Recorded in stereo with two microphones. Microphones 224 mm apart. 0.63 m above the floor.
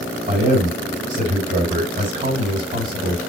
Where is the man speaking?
35° right (ahead or behind), 3.5 m.